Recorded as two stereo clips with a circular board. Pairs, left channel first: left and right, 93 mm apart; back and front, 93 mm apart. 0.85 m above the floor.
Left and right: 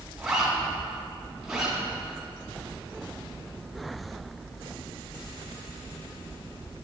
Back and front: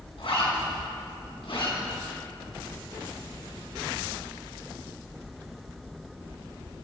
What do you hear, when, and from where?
0.2 s a zipper: 175° right, 3 m